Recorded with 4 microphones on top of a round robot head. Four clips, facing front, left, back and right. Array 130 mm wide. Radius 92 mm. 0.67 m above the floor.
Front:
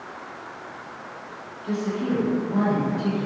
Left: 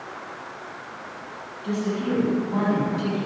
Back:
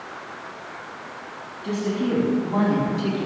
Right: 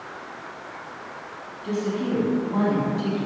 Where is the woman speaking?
175° left, 5 m; by 3.3 s 175° right, 4.5 m.